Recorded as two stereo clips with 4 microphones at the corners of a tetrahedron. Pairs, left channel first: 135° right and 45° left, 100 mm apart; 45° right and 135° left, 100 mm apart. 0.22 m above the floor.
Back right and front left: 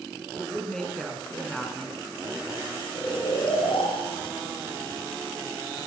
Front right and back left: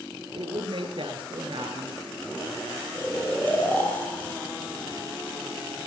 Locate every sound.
0.3 s a woman speaking: 140° left, 3.5 m
3.0 s snoring: 115° right, 5 m